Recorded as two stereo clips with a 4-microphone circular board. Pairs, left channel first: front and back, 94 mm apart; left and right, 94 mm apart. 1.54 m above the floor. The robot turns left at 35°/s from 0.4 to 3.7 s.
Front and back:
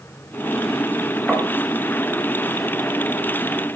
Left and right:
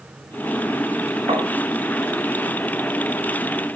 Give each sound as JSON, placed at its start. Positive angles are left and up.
{"t": 1.3, "sound": "tapping", "azimuth_deg": -95, "distance_m": 6.0}